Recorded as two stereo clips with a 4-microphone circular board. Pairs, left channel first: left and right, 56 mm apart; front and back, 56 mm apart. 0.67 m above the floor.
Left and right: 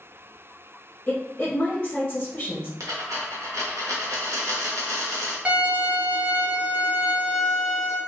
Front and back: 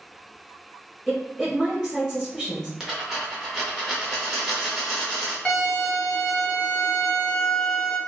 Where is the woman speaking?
95° left, 1.2 m.